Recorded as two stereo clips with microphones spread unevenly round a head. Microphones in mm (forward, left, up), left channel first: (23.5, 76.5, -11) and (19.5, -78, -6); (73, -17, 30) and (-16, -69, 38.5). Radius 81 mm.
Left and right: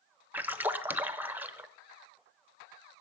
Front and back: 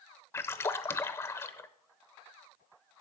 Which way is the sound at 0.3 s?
25° right.